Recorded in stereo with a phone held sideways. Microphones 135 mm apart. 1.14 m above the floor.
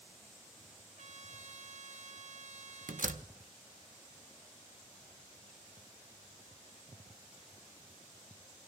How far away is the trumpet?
About 0.9 m.